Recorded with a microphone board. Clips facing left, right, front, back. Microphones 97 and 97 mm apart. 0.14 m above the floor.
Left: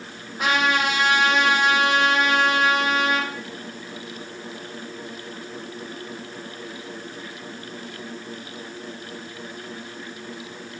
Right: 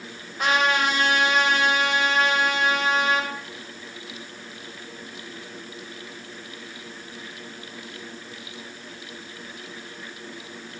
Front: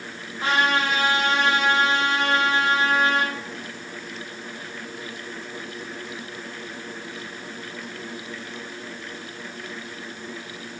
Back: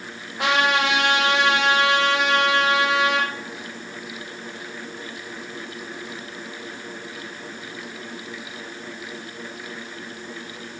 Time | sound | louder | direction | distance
0.4 | a trumpet | even, back 1 dB | straight behind | 3.5 m